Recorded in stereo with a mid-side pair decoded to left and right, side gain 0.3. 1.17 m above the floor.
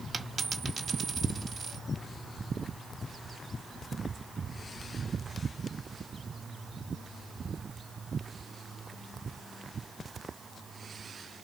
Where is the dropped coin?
60° right, 1.5 m.